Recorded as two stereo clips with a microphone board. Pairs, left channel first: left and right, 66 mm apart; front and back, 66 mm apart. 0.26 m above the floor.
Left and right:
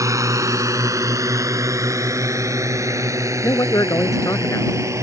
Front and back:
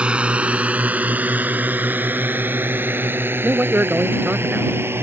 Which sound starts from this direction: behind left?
A man speaking, at 3.4 s.